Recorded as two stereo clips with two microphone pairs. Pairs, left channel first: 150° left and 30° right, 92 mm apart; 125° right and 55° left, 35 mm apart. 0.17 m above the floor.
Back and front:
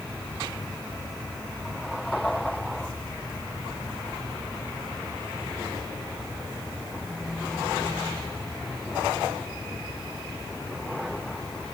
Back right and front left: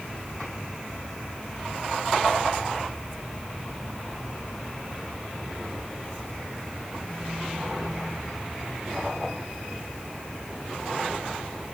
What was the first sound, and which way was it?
Only background noise.